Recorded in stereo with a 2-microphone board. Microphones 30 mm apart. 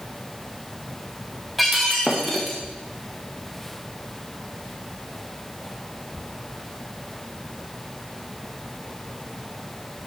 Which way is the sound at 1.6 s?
Centre (ahead or behind).